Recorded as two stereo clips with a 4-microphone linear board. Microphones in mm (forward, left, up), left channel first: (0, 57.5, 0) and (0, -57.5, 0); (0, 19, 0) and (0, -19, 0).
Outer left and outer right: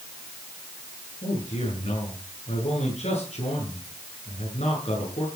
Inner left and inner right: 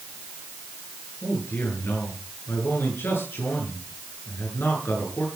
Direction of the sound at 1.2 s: 70° left (ahead or behind).